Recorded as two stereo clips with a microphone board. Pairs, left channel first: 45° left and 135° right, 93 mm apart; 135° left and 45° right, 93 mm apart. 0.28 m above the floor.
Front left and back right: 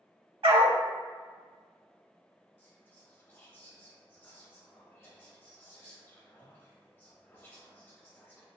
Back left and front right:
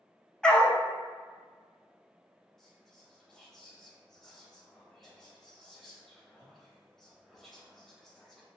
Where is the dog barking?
145° right, 0.5 m.